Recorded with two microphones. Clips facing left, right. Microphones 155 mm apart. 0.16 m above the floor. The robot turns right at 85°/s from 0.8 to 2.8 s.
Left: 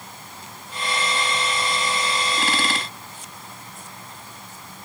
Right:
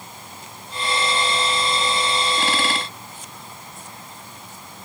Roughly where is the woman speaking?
I don't hear a woman speaking.